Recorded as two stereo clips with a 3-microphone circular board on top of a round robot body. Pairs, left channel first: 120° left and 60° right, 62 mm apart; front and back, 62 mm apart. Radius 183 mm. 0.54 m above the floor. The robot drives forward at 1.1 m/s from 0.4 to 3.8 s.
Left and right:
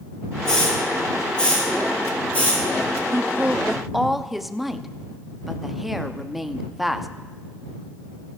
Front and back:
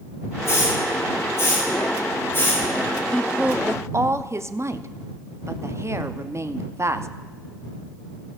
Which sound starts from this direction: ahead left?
A hiss, at 0.5 s.